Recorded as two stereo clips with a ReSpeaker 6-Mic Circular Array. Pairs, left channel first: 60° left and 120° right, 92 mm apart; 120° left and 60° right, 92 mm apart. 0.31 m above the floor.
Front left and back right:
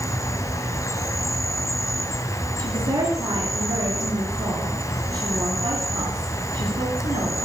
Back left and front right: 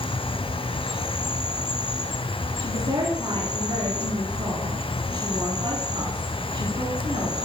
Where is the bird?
I don't hear a bird.